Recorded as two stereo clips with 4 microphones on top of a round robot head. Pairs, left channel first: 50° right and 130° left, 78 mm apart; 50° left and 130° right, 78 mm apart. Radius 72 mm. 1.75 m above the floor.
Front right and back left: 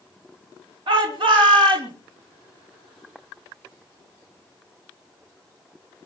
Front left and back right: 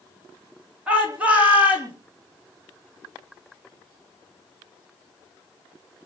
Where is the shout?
155° left, 4.5 m; by 1.9 s 160° left, 5.5 m.